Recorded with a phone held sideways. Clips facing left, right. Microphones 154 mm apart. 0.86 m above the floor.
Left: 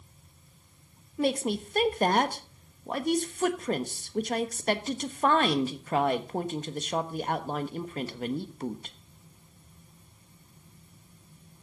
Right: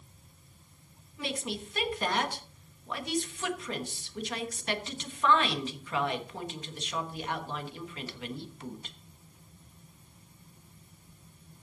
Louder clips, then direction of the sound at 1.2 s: Left 9 dB; 50° left (ahead or behind).